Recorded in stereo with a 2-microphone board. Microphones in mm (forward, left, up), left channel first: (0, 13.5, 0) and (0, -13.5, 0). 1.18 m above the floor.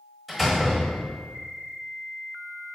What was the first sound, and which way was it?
A door slam, centre (ahead or behind).